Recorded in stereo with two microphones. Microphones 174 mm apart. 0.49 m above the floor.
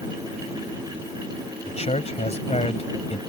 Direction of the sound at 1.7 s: 40° left (ahead or behind).